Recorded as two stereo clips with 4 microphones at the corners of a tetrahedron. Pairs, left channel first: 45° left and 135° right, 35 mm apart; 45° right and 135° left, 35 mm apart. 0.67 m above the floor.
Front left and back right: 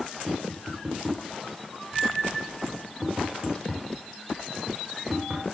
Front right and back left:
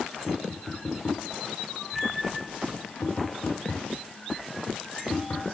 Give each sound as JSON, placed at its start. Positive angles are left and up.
{"t": 0.3, "sound": "tapping", "azimuth_deg": -65, "distance_m": 8.0}